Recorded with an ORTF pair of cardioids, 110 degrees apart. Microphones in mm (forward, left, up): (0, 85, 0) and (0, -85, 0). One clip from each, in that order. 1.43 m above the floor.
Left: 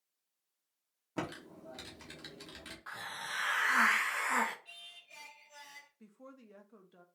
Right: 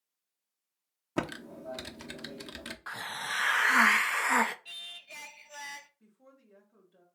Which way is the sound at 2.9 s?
35° right.